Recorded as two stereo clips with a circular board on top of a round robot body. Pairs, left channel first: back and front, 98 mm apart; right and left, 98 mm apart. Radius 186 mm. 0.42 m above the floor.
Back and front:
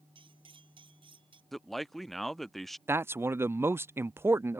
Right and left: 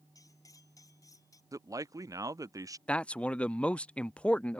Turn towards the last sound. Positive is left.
turn(degrees=-25)